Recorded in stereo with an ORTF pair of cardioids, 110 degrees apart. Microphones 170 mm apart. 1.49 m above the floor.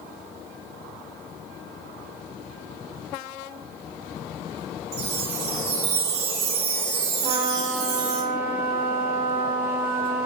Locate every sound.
4.9 s a chime: 65° right, 1.3 m
7.2 s a trumpet: 40° right, 1.7 m